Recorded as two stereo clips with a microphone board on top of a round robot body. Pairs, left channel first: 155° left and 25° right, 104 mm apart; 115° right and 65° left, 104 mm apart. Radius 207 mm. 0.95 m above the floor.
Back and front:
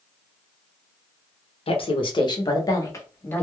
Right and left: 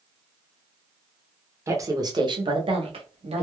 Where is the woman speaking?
130° left, 1.0 m; by 3.4 s 85° left, 1.3 m.